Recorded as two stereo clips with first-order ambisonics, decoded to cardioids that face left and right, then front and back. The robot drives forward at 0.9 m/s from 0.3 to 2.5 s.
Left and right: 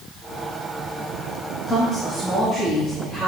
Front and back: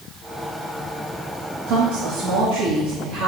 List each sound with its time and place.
1.7 s a woman speaking: 160° left, 1.4 m; by 3.3 s 170° left, 2 m